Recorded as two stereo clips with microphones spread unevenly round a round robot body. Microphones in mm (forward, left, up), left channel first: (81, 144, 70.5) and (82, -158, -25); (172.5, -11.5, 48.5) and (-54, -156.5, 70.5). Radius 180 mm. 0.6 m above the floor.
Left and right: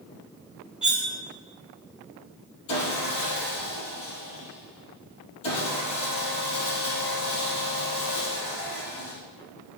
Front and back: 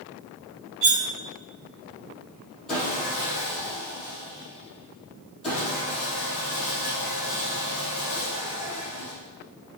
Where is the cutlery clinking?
170° right, 0.9 m.